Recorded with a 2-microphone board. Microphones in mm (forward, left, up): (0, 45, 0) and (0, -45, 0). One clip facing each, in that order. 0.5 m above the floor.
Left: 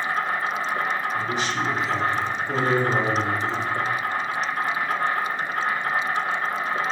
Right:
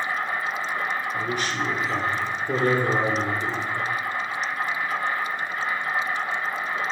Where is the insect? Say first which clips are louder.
Left 2 dB; 50° left (ahead or behind), 0.8 m.